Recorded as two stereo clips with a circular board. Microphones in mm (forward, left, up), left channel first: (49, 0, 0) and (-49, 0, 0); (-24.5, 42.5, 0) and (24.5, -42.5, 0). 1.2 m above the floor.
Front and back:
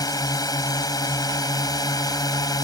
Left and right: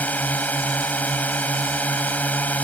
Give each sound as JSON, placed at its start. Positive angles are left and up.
{"t": 0.0, "sound": "a drone", "azimuth_deg": 45}